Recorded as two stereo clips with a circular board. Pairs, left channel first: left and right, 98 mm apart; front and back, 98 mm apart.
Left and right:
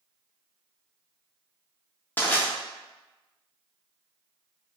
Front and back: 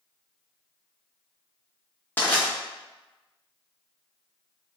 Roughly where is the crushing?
Ahead left.